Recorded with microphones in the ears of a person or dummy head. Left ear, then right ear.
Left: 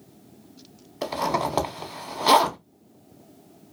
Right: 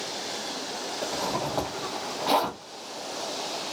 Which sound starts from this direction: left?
A zipper, at 1.0 s.